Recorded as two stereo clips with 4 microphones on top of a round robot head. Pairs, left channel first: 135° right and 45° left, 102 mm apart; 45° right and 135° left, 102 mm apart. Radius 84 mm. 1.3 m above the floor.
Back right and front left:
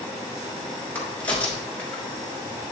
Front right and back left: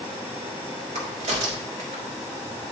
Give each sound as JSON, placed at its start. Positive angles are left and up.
{"t": 0.9, "sound": "a crack", "azimuth_deg": 150, "distance_m": 1.7}